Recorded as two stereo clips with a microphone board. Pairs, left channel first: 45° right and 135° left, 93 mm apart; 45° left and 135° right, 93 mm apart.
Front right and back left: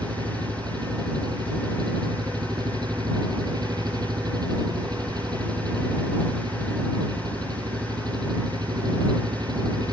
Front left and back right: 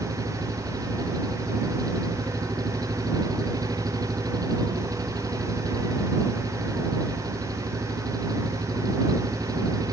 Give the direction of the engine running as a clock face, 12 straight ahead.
6 o'clock.